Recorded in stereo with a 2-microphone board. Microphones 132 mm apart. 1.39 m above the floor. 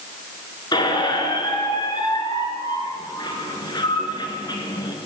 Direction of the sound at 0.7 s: 35° left (ahead or behind).